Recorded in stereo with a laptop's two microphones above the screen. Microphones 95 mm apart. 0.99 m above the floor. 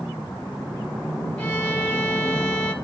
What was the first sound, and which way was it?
A violin, 15° left (ahead or behind).